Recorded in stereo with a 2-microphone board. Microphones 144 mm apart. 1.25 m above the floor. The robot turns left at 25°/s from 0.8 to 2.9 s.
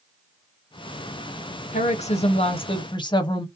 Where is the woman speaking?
60° left (ahead or behind), 0.6 m; by 3.5 s 35° left (ahead or behind), 0.6 m.